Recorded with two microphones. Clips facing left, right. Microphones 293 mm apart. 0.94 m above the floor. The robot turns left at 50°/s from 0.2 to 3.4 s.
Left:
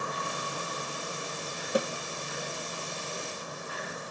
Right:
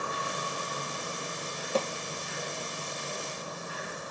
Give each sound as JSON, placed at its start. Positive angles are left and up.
{"t": 1.8, "sound": "a snare drum", "side_deg": 15, "distance_m": 0.9}